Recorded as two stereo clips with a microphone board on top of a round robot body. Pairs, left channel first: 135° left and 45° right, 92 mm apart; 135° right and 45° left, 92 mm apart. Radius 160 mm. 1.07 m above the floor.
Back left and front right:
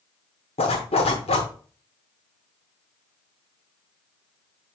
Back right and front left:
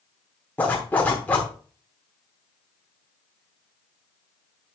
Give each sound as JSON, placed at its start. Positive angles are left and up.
{"t": 0.6, "sound": "a zipper", "azimuth_deg": 150, "distance_m": 1.0}